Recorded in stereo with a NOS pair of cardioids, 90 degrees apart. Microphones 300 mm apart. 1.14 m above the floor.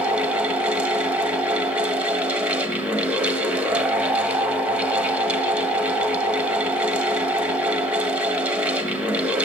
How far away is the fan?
About 1.1 m.